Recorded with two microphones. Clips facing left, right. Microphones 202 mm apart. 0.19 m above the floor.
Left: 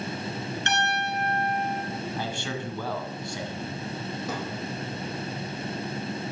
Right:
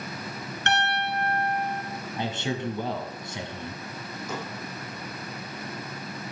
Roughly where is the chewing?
No chewing in this recording.